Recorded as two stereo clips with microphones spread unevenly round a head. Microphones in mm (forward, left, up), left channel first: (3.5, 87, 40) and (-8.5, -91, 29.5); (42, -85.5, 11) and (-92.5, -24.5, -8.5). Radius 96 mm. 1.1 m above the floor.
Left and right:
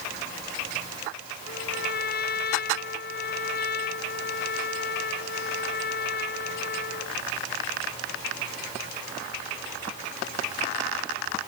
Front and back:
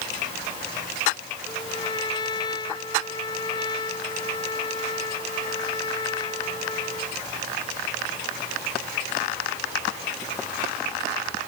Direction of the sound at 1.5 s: 45° left.